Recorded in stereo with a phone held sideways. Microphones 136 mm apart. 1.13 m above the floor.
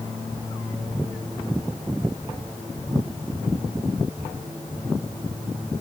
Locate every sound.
Only background noise.